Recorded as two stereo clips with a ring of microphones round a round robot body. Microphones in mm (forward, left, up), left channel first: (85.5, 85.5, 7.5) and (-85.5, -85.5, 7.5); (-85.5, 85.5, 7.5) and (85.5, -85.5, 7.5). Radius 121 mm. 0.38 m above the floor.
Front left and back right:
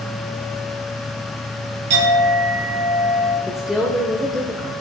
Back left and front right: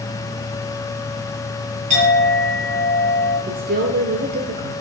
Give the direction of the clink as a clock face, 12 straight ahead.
4 o'clock.